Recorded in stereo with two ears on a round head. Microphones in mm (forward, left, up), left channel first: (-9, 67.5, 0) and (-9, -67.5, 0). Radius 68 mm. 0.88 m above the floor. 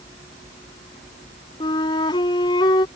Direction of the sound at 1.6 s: 35° left (ahead or behind).